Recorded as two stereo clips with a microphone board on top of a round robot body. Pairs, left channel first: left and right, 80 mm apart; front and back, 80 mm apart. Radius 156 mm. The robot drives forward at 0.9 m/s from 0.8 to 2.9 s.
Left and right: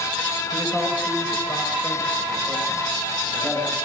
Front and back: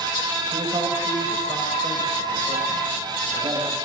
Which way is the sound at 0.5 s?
160° left.